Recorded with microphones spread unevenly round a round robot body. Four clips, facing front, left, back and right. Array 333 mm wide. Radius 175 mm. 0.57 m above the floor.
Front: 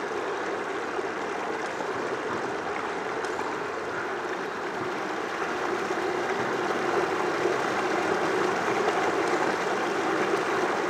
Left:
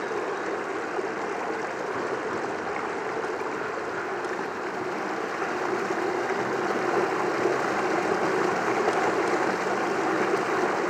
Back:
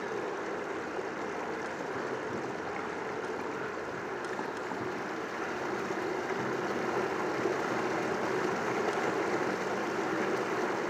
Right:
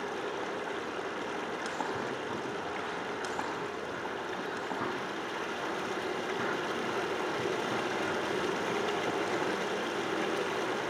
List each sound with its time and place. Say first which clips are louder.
0.0 s running water: left 7 dB, front 5 dB; 55° left, 1.1 m